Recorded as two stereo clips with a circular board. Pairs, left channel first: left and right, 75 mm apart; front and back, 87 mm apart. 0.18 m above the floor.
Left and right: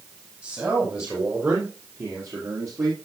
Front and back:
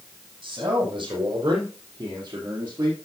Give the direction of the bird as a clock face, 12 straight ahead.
No bird in this recording.